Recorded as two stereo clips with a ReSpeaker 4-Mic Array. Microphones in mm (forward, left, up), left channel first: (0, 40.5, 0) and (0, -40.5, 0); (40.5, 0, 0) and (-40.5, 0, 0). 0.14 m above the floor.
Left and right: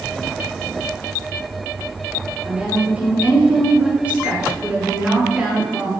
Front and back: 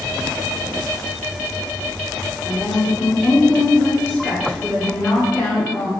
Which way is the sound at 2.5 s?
35° right.